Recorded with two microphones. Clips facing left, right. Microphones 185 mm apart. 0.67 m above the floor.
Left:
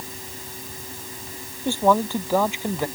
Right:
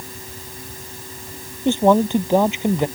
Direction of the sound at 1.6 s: 20° right (ahead or behind).